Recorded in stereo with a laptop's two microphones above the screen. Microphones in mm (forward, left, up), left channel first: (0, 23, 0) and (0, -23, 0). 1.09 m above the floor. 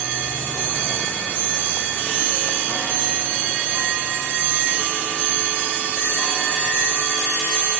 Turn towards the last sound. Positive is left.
No sound to turn to.